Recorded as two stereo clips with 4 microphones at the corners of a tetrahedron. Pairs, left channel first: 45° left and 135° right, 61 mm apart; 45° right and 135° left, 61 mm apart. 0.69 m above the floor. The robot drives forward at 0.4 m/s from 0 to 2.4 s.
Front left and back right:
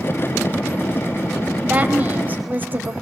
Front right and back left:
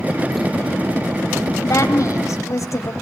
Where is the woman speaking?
70° right, 3 m; by 2.9 s 75° right, 3 m.